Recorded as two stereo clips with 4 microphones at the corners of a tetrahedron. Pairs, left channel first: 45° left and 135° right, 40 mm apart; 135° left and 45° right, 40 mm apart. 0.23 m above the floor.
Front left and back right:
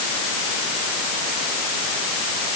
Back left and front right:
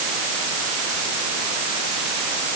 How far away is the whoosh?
No whoosh in this recording.